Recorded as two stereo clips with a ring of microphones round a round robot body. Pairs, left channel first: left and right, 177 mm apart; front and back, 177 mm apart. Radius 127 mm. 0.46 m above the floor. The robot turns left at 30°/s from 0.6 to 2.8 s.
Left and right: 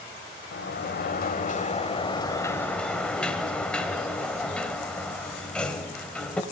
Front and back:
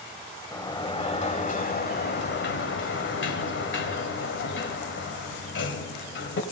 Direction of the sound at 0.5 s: 70° left.